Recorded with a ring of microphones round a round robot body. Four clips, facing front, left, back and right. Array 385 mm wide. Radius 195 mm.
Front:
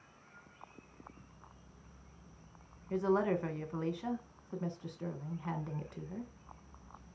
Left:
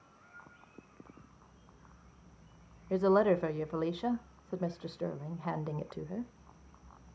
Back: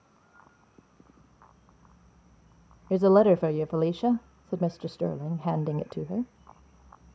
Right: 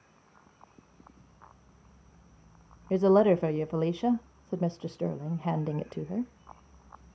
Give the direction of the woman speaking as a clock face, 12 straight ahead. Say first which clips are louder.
Right 5 dB, back 12 dB; 5 o'clock.